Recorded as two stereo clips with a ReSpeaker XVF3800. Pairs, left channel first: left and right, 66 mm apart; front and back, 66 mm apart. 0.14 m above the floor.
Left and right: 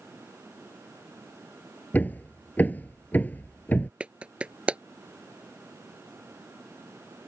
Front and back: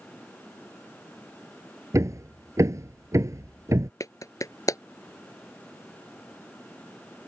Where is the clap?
20° right.